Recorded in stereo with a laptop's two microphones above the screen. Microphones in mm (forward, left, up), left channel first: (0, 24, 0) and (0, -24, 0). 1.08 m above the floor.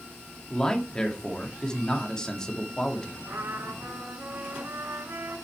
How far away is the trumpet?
About 5 m.